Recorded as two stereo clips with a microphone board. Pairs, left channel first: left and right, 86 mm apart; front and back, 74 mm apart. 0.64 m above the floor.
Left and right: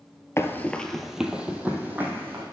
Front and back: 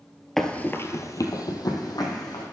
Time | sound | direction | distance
0.4 | running footsteps | 85° left | 0.7 m